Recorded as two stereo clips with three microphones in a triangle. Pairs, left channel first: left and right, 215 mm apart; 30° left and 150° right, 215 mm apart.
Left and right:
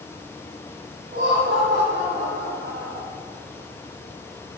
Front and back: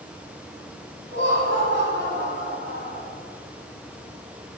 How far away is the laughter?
About 3.5 m.